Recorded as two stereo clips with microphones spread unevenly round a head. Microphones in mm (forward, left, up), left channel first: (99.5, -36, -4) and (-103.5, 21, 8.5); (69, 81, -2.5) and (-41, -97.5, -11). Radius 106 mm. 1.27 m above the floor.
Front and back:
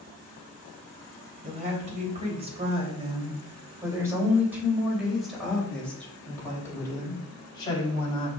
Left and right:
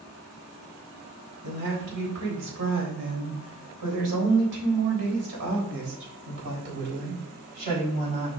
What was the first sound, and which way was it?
A woman speaking, 140° right.